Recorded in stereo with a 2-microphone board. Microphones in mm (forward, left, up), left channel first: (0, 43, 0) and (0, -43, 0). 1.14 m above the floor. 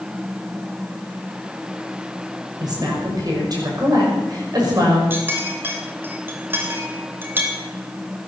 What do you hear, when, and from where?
2.6 s a woman speaking: 50° right (ahead or behind), 6 m
5.1 s a clink: 25° right (ahead or behind), 3 m